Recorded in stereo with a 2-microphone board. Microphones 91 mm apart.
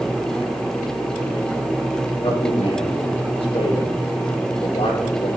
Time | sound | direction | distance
2.2 | a man speaking | 80° left | 3 m